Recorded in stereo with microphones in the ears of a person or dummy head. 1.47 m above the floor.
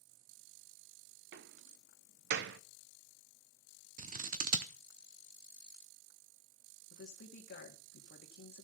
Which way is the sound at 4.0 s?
45° right (ahead or behind).